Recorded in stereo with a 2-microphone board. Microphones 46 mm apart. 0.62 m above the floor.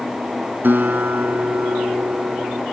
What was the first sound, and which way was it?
A guitar, 55° right (ahead or behind).